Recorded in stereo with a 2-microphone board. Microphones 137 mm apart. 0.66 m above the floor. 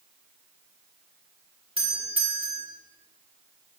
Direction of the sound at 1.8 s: 45° right (ahead or behind).